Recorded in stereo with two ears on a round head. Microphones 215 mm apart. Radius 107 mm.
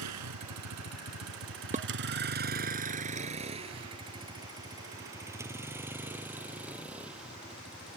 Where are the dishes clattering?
30° right (ahead or behind).